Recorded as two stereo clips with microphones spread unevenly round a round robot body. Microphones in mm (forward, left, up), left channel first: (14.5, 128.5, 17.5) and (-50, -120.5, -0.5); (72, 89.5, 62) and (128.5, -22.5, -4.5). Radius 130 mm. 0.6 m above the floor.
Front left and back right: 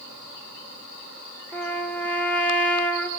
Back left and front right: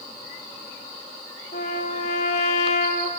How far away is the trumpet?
About 1.4 m.